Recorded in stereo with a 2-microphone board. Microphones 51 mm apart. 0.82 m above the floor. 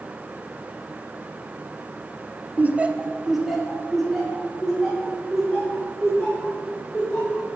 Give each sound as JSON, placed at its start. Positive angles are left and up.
{"t": 2.6, "sound": "laughter", "side_deg": -30, "distance_m": 0.5}